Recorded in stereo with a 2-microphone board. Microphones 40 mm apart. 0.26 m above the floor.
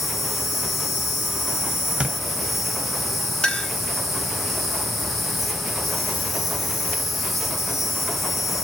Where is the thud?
30° right (ahead or behind), 0.5 m.